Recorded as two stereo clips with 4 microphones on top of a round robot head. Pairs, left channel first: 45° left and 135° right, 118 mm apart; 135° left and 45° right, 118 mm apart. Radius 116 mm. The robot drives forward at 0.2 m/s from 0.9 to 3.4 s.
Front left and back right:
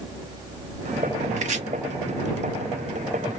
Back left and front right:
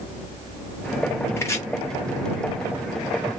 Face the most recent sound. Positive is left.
turn(degrees=-165)